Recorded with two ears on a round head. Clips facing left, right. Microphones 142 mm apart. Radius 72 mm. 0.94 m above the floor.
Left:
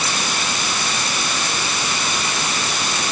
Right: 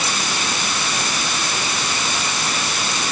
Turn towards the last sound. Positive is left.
No sound to turn to.